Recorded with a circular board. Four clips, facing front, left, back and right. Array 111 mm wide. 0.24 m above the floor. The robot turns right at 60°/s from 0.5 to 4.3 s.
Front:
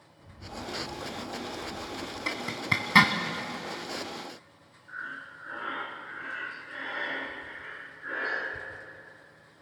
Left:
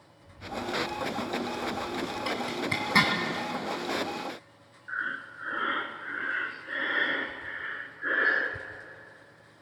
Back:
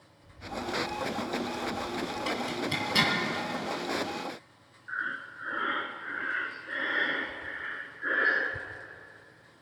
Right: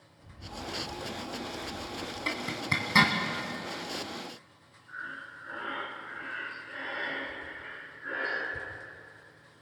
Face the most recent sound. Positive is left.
turn(degrees=125)